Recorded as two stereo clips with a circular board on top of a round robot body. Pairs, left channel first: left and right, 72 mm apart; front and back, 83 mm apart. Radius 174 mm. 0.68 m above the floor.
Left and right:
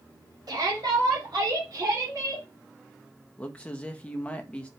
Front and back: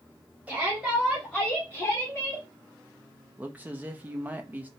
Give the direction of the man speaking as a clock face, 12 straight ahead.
7 o'clock.